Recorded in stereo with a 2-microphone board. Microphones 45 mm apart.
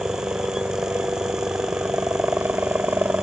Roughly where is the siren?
No siren in this recording.